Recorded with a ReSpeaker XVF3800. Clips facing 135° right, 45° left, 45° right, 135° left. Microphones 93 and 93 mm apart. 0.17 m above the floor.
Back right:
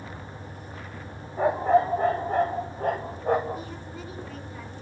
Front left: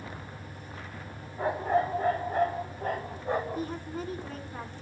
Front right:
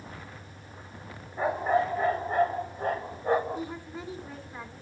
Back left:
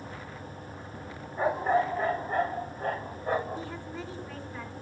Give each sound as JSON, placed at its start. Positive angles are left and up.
{"t": 1.4, "sound": "a dog barking", "azimuth_deg": -135, "distance_m": 4.0}
{"t": 3.5, "sound": "a woman speaking", "azimuth_deg": 25, "distance_m": 1.9}